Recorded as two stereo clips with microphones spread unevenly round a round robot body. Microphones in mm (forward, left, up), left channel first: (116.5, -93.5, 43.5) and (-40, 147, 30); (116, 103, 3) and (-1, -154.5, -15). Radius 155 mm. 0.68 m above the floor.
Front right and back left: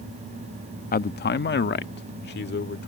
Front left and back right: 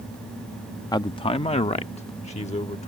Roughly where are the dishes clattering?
I don't hear dishes clattering.